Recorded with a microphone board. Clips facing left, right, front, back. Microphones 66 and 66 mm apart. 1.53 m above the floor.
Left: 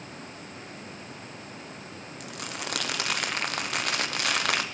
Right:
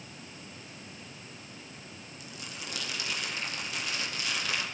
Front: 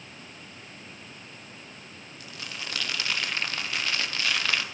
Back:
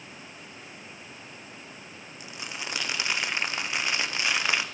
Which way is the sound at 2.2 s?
110° left.